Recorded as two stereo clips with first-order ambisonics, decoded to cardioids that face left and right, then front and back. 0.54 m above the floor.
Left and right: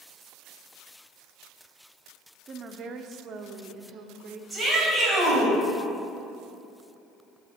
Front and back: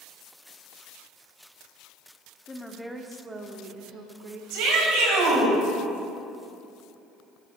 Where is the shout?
170° right, 3.5 m.